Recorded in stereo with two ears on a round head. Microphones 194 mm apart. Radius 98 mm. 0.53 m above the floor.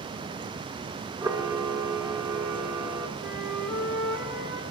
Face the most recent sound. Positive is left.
turn(degrees=65)  # may be behind; listen again after turning